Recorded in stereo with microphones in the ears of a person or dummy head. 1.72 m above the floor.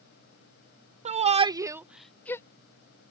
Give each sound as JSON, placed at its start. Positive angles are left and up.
{"t": 1.1, "sound": "a shout", "side_deg": -35}